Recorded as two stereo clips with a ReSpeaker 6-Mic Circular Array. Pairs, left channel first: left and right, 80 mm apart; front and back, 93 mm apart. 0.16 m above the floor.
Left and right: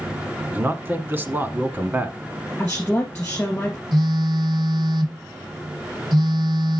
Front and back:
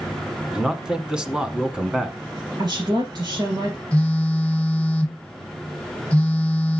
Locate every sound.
0.5 s a man speaking: 105° right, 1.1 m
2.6 s a woman speaking: 160° left, 2.5 m
3.9 s a phone buzzing: 75° right, 1.3 m